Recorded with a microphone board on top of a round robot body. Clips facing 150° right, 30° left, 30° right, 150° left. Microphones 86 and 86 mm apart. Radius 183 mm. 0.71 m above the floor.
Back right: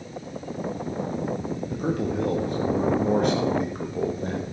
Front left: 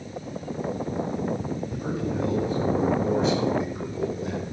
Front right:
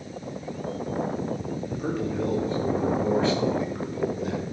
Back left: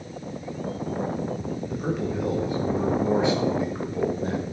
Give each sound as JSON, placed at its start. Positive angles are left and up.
{"t": 1.7, "sound": "a man speaking", "azimuth_deg": -125, "distance_m": 2.0}